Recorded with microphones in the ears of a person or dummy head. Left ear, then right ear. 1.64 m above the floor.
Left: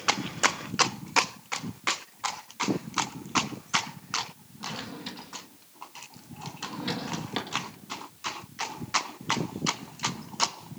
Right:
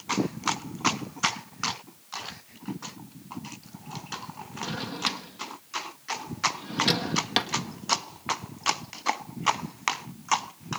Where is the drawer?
40° right (ahead or behind), 1.5 m.